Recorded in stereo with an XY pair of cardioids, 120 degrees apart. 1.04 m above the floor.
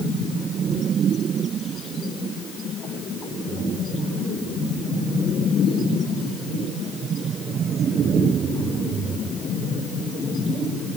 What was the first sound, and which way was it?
Only background noise.